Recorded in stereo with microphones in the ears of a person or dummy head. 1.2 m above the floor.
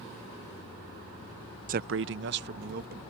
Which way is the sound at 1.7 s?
40° right (ahead or behind).